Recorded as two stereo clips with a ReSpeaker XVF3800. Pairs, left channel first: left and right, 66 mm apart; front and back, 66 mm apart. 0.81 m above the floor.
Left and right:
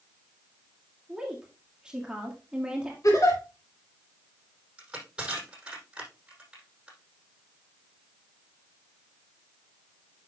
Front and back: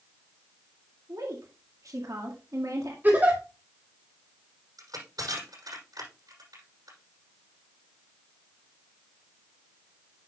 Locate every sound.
1.1 s a woman speaking: 165° right, 1.8 m
3.0 s a giggle: 120° left, 4 m
4.8 s crushing: 165° right, 6 m